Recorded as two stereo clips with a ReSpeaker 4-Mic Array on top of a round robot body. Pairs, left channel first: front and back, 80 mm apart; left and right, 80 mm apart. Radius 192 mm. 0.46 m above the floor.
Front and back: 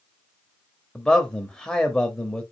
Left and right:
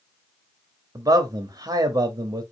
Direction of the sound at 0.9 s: 75° right.